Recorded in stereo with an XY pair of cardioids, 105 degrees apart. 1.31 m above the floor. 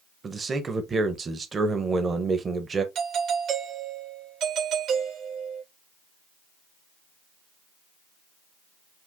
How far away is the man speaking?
About 1.1 m.